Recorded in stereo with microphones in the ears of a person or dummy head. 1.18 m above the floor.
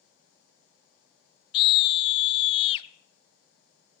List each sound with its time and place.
1.5 s a scream: 35° left (ahead or behind), 0.7 m